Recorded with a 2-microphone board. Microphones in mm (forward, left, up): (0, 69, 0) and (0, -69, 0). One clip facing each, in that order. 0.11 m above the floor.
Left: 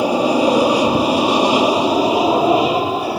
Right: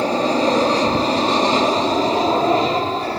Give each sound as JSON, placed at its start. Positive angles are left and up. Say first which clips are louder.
{"t": 0.0, "sound": "an aircraft", "louder": "left 3 dB", "side_deg": 10}